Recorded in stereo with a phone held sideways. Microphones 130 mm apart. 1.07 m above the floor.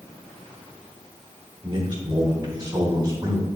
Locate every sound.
1.6 s a man speaking: 35° right (ahead or behind), 2 m; by 3.5 s 25° right (ahead or behind), 3.5 m